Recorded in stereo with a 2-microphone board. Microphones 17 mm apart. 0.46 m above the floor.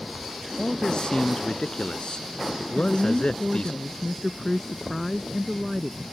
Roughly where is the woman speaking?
Centre.